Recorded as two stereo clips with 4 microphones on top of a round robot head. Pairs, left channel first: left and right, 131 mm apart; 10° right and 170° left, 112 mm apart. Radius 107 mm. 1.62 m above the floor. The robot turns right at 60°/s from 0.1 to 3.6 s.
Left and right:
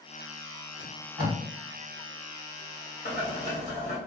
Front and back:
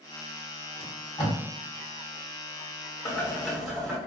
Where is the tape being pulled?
95° right, 1.2 m; by 1.4 s 60° right, 1.2 m.